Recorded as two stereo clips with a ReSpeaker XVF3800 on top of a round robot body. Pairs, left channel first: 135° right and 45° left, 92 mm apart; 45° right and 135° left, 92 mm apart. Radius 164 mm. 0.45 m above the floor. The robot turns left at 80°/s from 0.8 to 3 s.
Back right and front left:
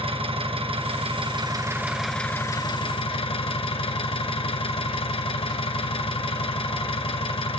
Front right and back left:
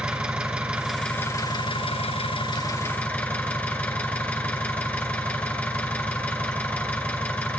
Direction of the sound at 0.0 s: 55° left.